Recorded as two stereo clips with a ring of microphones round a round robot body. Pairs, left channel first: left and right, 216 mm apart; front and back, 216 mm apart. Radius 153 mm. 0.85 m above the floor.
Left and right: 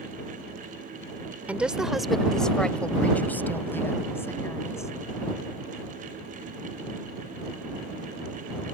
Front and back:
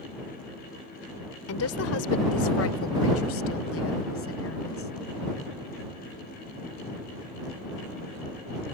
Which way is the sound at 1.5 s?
5° right.